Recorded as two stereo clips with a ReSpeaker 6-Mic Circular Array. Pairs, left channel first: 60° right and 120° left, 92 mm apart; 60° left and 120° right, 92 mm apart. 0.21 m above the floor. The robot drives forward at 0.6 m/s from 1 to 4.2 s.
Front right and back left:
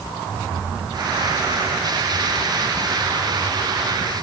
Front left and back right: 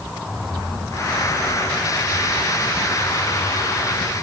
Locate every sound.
Only background noise.